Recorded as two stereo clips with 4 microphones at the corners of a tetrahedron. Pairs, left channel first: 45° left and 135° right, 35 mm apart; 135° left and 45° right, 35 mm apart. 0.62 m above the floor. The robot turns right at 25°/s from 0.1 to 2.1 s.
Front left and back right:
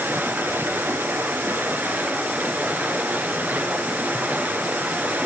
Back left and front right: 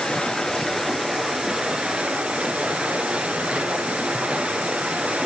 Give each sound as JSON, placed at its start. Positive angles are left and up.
{"t": 0.0, "sound": "running water", "azimuth_deg": -155, "distance_m": 2.0}